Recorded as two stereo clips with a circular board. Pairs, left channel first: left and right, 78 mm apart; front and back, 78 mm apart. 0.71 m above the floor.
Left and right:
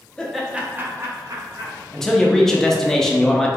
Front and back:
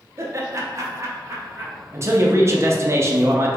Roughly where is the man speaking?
Behind.